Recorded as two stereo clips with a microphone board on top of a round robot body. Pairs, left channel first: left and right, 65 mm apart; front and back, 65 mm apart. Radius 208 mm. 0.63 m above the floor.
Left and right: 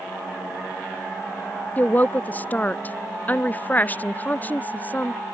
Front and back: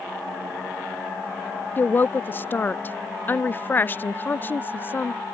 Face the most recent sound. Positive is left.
turn(degrees=40)